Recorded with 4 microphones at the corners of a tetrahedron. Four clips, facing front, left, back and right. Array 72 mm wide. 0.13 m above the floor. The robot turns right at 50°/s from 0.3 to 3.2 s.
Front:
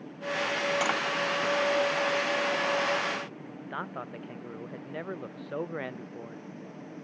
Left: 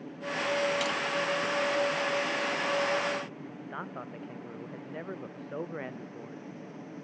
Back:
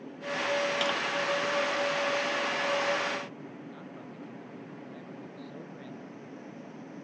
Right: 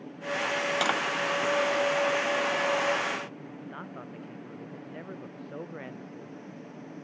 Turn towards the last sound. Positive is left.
turn(degrees=15)